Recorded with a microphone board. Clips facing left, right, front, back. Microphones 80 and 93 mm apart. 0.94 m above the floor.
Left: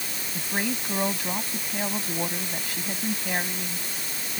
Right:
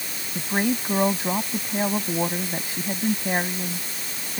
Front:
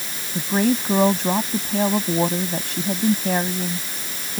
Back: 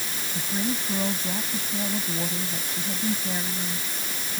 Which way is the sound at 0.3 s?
20° right.